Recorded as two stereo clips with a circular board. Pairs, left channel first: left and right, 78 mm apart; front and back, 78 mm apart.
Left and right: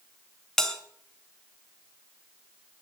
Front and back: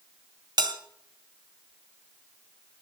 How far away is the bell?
About 1.9 m.